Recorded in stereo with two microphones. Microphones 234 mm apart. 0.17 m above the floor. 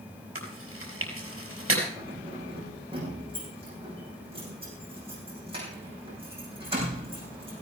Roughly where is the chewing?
Right.